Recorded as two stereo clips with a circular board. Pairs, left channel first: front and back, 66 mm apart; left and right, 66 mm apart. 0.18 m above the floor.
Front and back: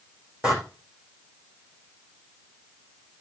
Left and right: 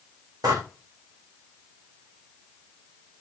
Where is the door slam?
105° right, 9.5 m.